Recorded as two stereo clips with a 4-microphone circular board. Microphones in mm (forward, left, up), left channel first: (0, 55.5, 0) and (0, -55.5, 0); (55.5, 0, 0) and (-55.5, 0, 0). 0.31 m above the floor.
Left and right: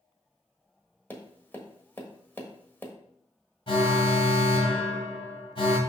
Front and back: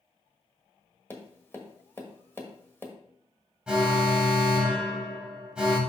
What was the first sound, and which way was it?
Tapping, 40° left.